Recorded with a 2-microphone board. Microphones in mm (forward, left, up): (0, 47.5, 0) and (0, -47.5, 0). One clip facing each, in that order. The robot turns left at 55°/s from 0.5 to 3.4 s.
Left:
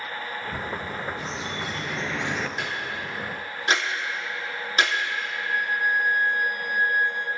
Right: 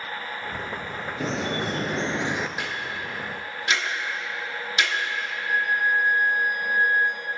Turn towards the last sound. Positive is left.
turn(degrees=-20)  # may be behind; listen again after turning